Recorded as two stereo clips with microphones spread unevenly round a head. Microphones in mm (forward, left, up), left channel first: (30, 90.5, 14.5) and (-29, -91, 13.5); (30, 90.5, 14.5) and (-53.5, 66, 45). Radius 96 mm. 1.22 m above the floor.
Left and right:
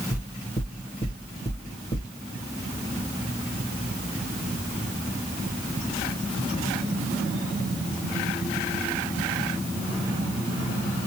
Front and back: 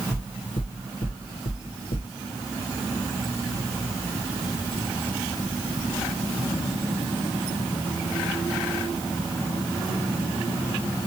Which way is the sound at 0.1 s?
Straight ahead.